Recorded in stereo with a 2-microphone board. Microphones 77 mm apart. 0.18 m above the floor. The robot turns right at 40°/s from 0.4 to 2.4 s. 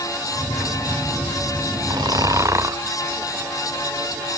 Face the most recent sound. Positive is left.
turn(degrees=-45)  # may be behind; listen again after turning